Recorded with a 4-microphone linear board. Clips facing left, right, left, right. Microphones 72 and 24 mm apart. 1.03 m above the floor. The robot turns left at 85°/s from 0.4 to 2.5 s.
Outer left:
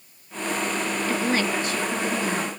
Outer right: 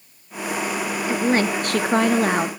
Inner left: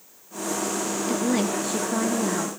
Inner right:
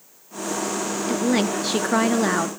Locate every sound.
1.1 s a woman speaking: 10° right, 0.8 m; by 2.5 s 130° right, 0.8 m